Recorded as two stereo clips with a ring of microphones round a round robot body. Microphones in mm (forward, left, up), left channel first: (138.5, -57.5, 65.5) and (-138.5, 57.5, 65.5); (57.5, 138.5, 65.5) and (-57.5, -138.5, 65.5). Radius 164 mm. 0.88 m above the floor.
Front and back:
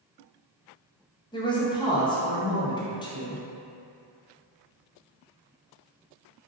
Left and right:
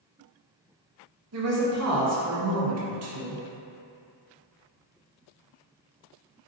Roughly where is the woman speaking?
Right.